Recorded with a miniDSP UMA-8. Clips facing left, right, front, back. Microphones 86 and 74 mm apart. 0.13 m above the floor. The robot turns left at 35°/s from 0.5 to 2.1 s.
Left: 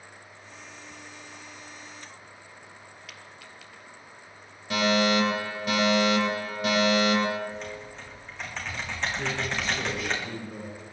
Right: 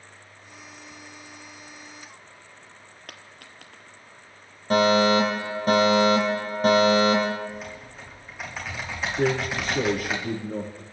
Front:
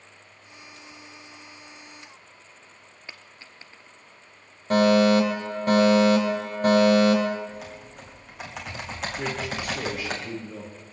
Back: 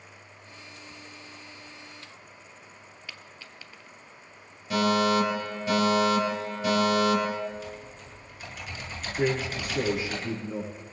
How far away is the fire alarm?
About 8 m.